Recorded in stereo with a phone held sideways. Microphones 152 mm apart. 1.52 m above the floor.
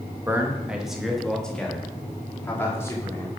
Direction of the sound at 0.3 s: 15° right (ahead or behind).